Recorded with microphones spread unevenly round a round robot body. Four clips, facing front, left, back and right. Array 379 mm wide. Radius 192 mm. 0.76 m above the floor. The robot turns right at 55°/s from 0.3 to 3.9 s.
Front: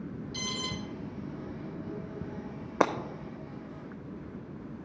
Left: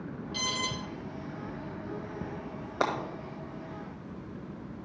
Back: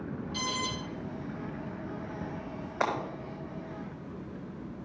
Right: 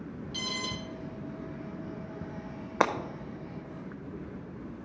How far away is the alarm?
About 5 m.